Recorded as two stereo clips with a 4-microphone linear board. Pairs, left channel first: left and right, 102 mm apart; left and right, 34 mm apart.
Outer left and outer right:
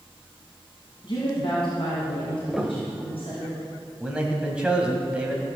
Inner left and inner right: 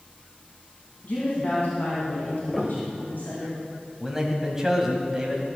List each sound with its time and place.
1.0 s a woman speaking: 50° left (ahead or behind), 3 m; by 3.5 s 70° left (ahead or behind), 4 m
2.5 s a piano: centre (ahead or behind), 1.0 m
4.0 s a man speaking: 10° right (ahead or behind), 2 m